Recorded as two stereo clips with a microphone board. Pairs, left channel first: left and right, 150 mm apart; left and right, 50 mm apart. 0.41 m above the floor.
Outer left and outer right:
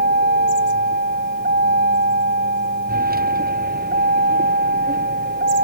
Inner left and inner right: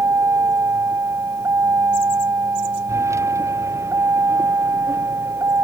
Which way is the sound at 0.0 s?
85° right.